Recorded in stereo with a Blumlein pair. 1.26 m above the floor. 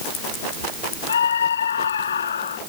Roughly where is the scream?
Ahead left.